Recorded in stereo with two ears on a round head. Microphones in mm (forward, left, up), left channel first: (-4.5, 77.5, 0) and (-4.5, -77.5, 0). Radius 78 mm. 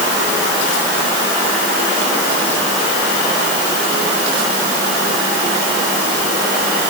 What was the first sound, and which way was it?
Only background noise.